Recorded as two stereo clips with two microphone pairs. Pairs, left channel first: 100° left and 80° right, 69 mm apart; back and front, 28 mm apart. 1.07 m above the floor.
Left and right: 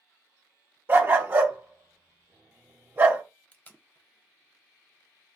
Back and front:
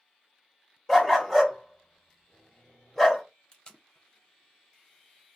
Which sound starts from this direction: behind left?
Tape being pulled, at 3.5 s.